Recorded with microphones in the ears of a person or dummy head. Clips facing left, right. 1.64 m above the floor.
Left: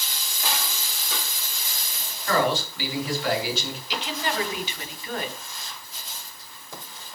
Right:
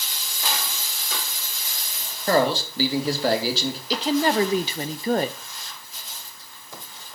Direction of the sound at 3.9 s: 30° right (ahead or behind).